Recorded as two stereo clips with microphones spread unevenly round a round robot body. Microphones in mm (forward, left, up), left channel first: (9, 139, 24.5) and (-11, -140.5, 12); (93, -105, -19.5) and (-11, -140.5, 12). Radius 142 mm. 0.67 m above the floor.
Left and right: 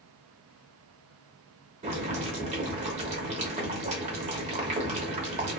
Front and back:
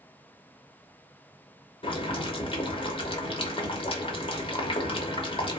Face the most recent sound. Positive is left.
turn(degrees=-25)